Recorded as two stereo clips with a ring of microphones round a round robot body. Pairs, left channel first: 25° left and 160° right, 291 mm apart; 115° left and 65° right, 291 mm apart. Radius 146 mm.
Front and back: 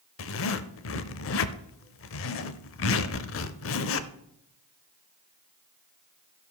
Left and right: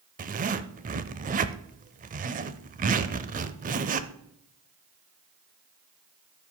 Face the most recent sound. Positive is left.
turn(degrees=-10)